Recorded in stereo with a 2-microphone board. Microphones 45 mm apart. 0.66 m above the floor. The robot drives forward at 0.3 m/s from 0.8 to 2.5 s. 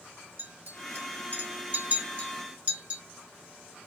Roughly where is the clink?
Right.